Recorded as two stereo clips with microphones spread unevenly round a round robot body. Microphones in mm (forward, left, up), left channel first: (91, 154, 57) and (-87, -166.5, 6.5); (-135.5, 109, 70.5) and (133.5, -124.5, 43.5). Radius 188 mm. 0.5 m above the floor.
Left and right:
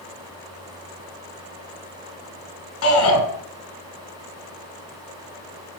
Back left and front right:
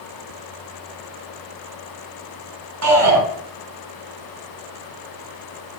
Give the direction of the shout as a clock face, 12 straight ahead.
12 o'clock.